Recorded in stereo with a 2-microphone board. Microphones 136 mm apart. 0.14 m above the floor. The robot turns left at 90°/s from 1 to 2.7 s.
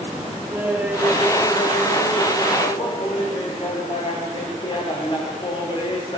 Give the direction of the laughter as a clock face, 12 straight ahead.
6 o'clock.